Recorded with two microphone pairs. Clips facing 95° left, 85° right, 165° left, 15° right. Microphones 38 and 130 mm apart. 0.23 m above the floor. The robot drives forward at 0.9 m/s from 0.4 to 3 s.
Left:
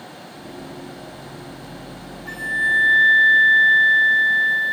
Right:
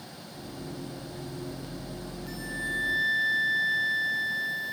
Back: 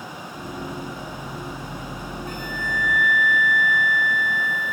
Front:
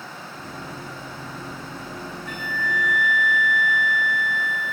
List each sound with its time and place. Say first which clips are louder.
2.3 s a flute: left 14 dB, front 3 dB; 115° left; by 4.7 s 135° left